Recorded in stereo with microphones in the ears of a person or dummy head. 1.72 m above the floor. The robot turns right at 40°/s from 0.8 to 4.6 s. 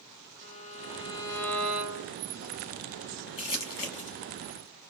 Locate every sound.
0.4 s a violin: 145° left, 0.6 m; by 2.2 s 160° right, 0.6 m
3.4 s crumpling: 25° left (ahead or behind), 0.9 m; by 4.2 s 40° left (ahead or behind), 0.9 m